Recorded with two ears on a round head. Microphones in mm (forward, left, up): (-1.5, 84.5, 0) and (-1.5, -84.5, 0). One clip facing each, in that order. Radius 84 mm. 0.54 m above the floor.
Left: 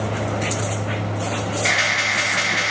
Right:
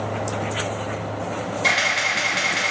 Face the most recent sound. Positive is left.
turn(degrees=-65)  # may be behind; listen again after turning